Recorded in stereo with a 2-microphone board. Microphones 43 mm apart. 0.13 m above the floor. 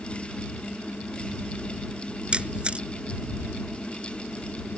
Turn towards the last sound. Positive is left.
turn(degrees=-25)  # may be behind; listen again after turning